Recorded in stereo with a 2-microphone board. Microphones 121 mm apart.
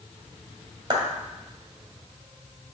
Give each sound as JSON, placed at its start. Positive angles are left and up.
{"t": 0.9, "sound": "a clap", "side_deg": -40, "distance_m": 1.8}